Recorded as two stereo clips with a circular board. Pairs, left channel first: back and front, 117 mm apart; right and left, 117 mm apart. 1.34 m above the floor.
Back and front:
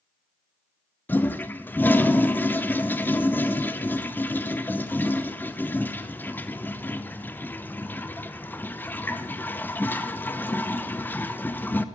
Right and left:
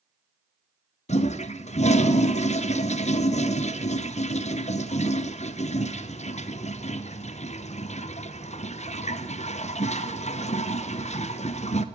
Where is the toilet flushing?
105° right, 0.8 m.